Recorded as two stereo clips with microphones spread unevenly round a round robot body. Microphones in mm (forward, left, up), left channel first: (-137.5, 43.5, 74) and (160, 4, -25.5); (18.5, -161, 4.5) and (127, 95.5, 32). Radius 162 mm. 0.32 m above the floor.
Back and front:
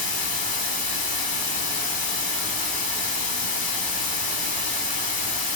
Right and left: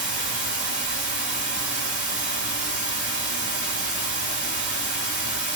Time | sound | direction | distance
0.0 | running water | 125° left | 1.6 m